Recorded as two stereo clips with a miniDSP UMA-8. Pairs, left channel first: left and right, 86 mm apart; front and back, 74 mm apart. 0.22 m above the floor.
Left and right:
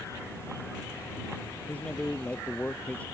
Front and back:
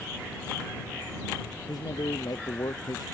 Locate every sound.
1.7 s a man speaking: 20° left